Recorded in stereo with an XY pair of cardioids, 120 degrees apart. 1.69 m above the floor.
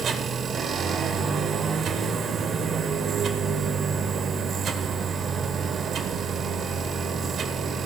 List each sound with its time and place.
0.0 s a machine running: 50° right, 1.9 m